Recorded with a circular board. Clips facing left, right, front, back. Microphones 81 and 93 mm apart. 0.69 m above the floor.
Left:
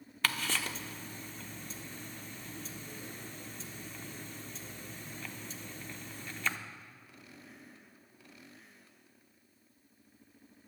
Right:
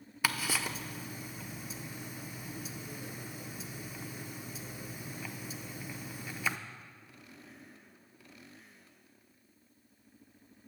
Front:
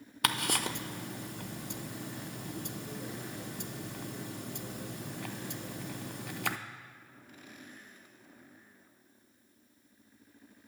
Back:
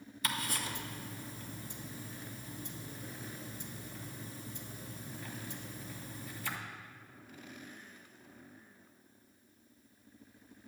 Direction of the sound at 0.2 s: 10° right.